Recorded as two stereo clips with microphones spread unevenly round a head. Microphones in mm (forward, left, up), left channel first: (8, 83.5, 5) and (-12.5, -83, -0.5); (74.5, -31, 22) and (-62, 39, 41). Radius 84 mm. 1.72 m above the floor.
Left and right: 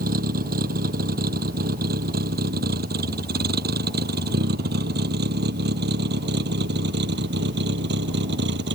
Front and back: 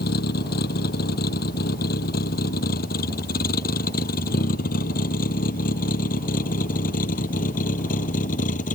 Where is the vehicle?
55° right; by 8.7 s 70° right.